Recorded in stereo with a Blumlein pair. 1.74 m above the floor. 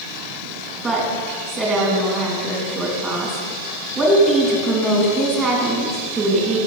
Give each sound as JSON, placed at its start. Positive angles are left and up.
{"t": 0.8, "sound": "a woman speaking", "azimuth_deg": -15, "distance_m": 3.0}